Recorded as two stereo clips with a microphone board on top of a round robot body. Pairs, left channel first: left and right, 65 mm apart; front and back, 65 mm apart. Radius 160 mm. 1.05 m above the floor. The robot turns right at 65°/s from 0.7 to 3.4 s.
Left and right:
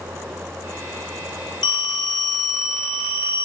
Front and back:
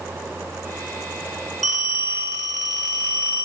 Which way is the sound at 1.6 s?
85° left.